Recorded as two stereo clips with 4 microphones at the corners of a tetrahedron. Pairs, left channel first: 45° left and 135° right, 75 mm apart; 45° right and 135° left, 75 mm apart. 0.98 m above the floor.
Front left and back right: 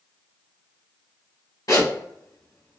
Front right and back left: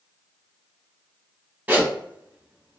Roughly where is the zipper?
Left.